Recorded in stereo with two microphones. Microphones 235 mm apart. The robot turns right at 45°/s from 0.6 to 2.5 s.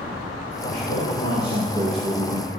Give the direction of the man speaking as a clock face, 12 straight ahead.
8 o'clock.